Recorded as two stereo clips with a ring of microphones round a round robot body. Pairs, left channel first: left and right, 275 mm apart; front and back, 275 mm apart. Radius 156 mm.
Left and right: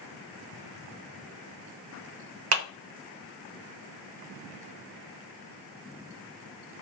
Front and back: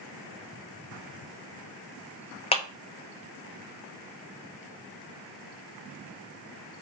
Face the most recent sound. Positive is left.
turn(degrees=-65)